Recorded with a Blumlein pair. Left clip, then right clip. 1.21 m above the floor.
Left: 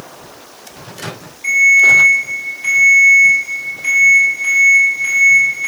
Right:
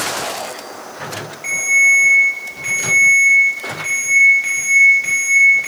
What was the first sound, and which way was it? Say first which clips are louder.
A ringtone: left 5 dB; 15° right.